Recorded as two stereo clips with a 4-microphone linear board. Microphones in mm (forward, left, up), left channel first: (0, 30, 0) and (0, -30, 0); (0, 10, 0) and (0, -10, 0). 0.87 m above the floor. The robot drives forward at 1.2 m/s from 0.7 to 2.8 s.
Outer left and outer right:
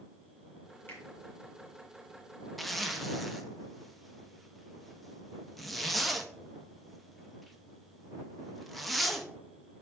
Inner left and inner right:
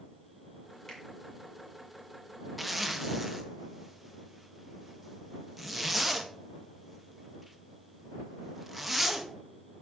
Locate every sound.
0.9 s a finger snap: 35° left (ahead or behind), 2 m
2.6 s a zipper: centre (ahead or behind), 0.6 m